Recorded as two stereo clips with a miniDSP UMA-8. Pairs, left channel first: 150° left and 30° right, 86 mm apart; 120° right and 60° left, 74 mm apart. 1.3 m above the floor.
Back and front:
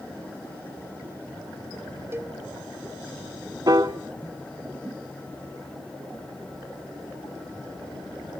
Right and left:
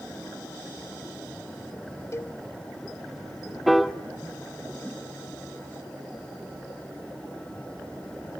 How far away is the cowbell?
About 0.9 m.